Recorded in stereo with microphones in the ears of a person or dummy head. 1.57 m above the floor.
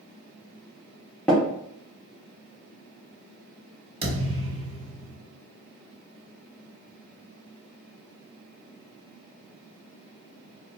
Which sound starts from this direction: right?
A thud, at 4.0 s.